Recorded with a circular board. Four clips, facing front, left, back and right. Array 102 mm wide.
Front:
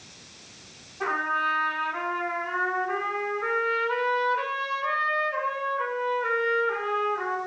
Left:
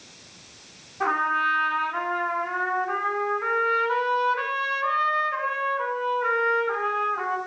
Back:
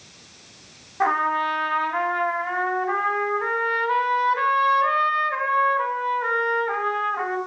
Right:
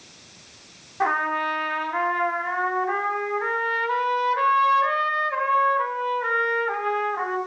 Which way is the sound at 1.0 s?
140° right.